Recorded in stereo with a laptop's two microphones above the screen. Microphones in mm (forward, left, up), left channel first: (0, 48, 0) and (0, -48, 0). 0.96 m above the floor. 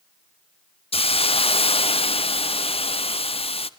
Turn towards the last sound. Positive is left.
turn(degrees=70)  # may be behind; listen again after turning